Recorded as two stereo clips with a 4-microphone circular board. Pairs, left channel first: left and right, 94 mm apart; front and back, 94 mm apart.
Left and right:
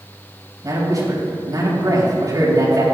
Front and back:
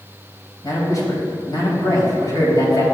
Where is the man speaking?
45° right, 3.5 m.